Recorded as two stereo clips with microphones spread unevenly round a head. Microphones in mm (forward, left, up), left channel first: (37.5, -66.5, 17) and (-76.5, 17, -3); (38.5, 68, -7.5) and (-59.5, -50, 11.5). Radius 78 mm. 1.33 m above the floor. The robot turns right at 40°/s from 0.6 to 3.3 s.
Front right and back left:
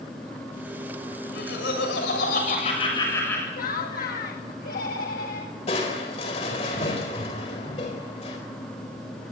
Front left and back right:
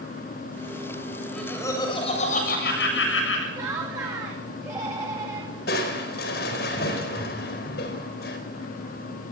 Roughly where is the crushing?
Ahead.